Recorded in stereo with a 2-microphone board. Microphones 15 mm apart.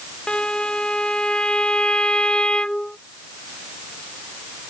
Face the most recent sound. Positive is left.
turn(degrees=85)